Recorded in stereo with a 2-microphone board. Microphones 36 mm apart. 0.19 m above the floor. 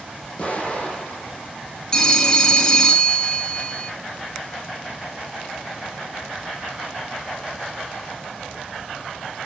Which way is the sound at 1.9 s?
20° left (ahead or behind).